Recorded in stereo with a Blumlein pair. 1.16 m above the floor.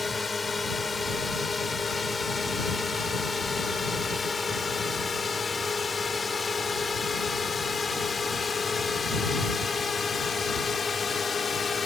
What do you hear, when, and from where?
0.0 s a drone: 10° left; by 11.9 s 15° left